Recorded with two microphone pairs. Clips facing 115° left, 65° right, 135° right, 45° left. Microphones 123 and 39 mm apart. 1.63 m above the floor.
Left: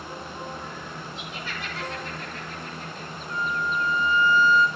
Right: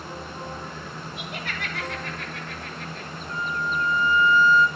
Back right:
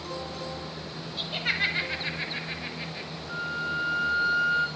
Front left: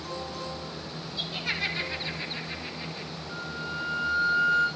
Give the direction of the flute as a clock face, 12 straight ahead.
6 o'clock.